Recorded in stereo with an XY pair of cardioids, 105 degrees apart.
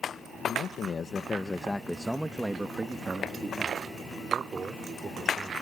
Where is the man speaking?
65° left; by 5.5 s 40° right.